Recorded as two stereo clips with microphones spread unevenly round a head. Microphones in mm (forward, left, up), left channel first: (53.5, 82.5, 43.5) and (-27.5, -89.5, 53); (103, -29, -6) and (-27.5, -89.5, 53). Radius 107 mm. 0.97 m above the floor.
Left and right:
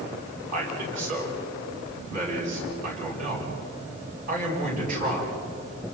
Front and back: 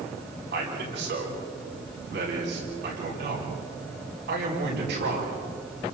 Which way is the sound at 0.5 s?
165° right.